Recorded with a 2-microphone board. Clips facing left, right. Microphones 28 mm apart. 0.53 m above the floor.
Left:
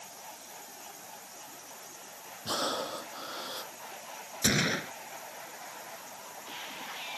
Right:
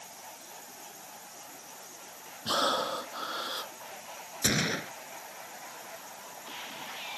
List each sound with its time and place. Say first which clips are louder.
2.5 s breathing: right 4 dB; 25° right (ahead or behind)
4.4 s a gunshot: left 1 dB; 5° left (ahead or behind)